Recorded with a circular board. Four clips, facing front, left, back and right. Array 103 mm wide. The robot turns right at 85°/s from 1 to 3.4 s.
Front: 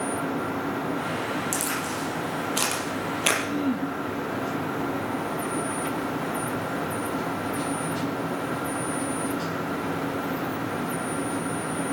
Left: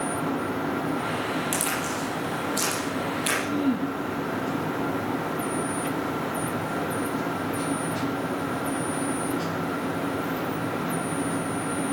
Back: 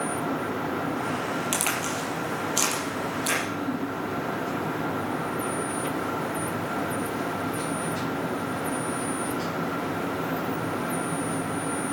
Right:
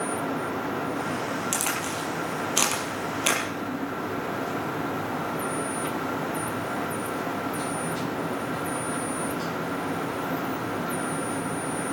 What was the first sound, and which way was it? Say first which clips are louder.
A crack: left 1 dB, even; 175° right.